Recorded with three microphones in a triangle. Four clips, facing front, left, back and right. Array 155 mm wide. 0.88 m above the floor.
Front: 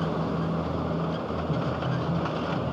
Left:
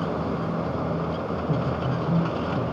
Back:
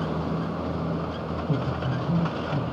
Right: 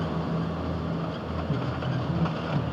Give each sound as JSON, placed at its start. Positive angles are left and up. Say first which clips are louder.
{"t": 1.5, "sound": "a man speaking", "louder": "left 3 dB, back 1 dB", "azimuth_deg": 90, "distance_m": 5.5}